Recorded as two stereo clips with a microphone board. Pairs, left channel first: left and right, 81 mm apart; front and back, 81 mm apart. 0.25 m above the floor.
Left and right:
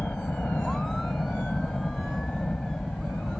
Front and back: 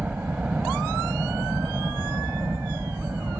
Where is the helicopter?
135° left; by 3.4 s 160° left.